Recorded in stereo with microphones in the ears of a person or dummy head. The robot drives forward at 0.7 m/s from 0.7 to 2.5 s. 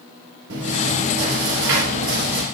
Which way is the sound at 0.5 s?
75° right (ahead or behind).